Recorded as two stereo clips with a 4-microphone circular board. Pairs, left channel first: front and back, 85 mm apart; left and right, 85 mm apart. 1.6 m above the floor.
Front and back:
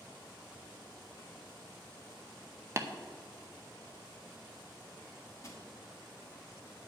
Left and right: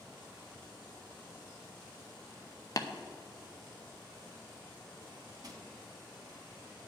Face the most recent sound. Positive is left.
turn(degrees=-55)